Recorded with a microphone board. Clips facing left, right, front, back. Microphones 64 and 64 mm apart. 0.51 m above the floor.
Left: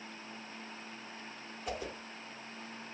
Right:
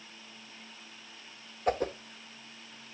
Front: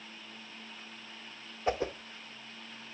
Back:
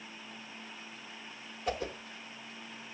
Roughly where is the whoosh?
Ahead right.